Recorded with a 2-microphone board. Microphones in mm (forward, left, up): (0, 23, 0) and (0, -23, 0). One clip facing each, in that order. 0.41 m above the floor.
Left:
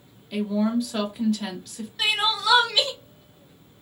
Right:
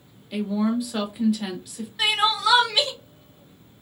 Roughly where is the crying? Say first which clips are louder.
Right 2 dB; centre.